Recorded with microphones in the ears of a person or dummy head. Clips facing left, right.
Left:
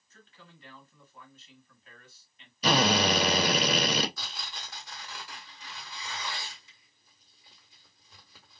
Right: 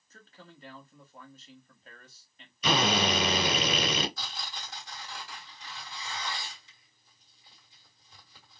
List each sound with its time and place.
0.1 s a man speaking: 30° right (ahead or behind), 0.9 m
2.6 s a drill: 25° left (ahead or behind), 0.9 m
4.2 s tearing paper: 65° left (ahead or behind), 1.4 m